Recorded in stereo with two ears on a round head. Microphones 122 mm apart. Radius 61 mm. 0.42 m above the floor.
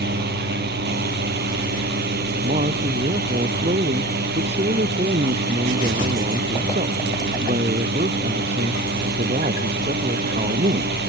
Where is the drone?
80° right.